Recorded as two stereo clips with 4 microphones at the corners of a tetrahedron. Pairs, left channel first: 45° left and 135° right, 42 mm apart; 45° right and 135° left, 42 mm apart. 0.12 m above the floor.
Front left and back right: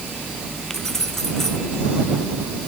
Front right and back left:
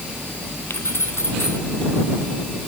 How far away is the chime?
I don't hear a chime.